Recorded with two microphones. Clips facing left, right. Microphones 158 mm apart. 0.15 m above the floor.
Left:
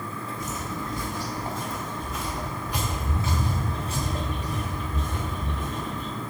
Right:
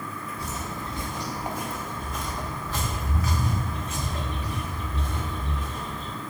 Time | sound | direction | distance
0.4 | footsteps | 35° right (ahead or behind) | 1.7 m